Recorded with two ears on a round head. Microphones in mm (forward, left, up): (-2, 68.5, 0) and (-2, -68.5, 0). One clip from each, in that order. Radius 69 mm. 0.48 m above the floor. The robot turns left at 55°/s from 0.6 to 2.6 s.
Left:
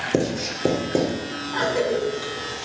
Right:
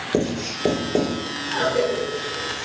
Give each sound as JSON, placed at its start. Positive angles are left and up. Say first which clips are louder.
{"t": 0.1, "sound": "writing", "louder": "right 2 dB", "side_deg": 80, "distance_m": 3.0}
{"t": 1.5, "sound": "a cough", "louder": "right 1 dB", "side_deg": 30, "distance_m": 4.5}